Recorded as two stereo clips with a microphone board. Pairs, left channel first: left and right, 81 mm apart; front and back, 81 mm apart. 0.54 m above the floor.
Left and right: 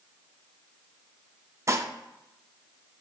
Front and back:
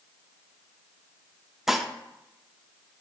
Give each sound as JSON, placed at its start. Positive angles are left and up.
{"t": 1.7, "sound": "dishes clattering", "azimuth_deg": -100, "distance_m": 0.5}